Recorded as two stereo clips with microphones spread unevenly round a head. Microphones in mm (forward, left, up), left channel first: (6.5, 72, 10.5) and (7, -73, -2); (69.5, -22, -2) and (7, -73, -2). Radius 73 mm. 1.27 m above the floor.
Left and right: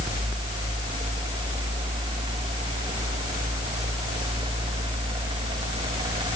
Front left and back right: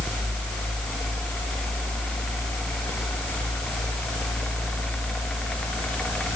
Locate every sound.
Only background noise.